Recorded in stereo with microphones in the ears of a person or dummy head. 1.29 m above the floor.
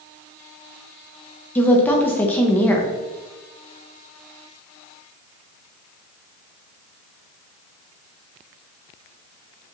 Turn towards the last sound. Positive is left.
turn(degrees=10)  # may be behind; listen again after turning